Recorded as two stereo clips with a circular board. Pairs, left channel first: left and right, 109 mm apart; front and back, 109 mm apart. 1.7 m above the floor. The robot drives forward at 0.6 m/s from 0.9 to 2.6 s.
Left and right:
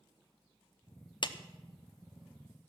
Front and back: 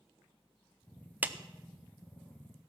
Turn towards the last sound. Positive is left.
turn(degrees=155)